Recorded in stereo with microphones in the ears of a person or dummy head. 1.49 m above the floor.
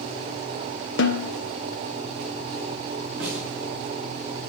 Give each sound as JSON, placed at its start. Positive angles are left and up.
{"t": 1.0, "sound": "a snare drum", "side_deg": 55, "distance_m": 0.8}
{"t": 3.2, "sound": "a snare drum", "side_deg": -5, "distance_m": 5.0}